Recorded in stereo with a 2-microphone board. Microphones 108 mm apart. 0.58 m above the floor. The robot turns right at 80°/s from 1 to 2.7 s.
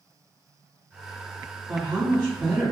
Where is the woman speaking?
85° right, 1.9 m; by 2.7 s 5° right, 1.9 m.